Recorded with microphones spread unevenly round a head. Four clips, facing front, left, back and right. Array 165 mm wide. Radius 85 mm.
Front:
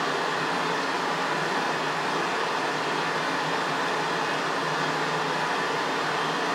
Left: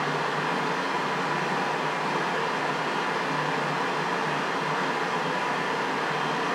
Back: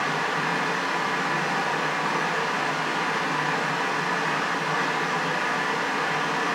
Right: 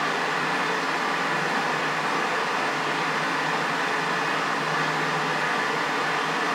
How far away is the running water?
About 1.3 m.